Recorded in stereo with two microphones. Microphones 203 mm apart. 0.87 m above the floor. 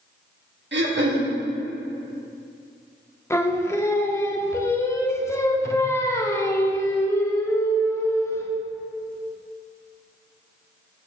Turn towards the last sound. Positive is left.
turn(degrees=15)  # may be behind; listen again after turning